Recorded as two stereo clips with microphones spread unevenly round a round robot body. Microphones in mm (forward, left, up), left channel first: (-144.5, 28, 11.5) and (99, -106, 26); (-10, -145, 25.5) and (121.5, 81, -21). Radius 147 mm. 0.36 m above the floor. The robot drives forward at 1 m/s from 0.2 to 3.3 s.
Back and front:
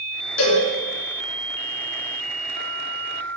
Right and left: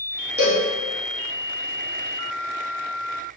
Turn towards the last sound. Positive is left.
turn(degrees=160)